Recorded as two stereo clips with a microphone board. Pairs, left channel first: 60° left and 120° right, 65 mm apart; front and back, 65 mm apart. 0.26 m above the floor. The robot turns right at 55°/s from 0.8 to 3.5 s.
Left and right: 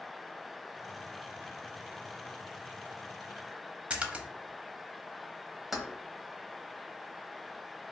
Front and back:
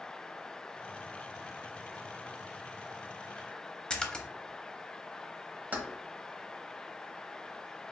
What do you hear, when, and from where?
3.9 s a splash: 65° right, 0.7 m
5.7 s keys jangling: 155° left, 1.0 m